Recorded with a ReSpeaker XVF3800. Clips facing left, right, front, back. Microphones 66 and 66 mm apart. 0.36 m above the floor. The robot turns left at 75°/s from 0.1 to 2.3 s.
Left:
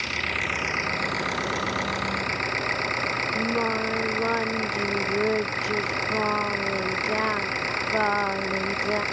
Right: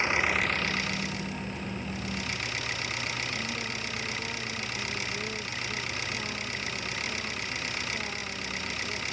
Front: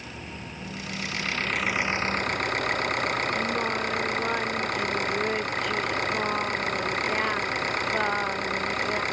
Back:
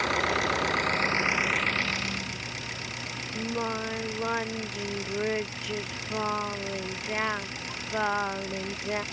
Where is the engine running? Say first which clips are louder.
Right 2 dB, back 13 dB; 155° right; by 9.1 s 40° left.